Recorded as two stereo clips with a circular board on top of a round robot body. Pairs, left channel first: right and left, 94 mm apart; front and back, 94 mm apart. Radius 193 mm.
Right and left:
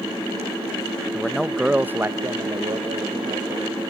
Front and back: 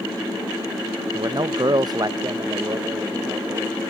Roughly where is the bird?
I don't hear a bird.